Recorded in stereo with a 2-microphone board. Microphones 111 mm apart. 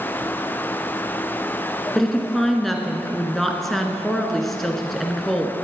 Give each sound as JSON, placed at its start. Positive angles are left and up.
{"t": 1.9, "sound": "a woman speaking", "side_deg": 0, "distance_m": 1.7}